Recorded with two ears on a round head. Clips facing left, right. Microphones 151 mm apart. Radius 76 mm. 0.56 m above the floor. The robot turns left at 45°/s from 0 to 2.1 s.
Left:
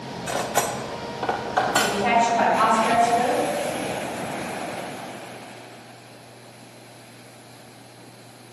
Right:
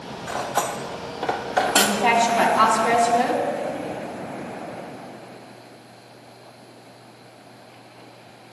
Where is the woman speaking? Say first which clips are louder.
Right 1 dB; 65° right (ahead or behind), 3.5 m; by 3.4 s 80° right, 3.5 m.